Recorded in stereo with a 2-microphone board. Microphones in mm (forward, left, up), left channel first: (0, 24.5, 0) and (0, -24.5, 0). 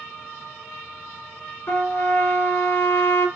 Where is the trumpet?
60° left (ahead or behind), 2.5 m.